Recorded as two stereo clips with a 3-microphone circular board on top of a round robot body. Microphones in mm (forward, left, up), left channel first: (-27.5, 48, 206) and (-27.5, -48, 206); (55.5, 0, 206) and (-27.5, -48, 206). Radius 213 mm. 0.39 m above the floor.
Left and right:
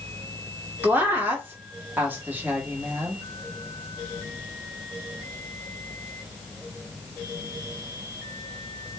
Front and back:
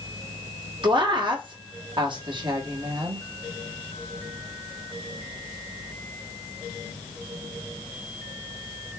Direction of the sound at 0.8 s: 155° right.